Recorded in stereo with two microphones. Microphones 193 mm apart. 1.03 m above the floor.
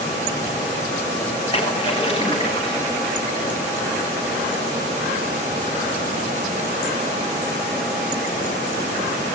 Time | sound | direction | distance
1.5 | a splash | 25° left (ahead or behind) | 7 m